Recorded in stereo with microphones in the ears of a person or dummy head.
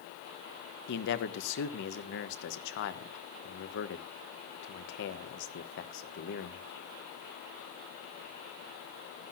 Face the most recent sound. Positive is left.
turn(degrees=60)  # may be behind; listen again after turning